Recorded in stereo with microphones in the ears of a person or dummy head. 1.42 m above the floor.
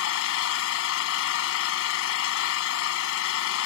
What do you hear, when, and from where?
0.0 s an engine running: 80° left